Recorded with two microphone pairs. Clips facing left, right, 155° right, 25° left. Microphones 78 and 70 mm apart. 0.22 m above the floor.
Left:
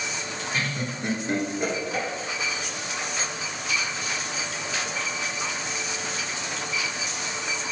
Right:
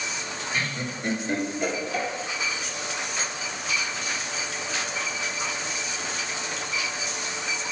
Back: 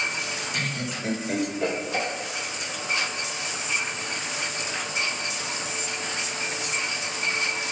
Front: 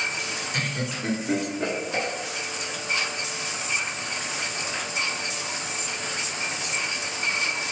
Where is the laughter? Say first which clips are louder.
Left 1 dB, front 2 dB; 15° left, 2.5 m; by 2.1 s 60° left, 2.5 m.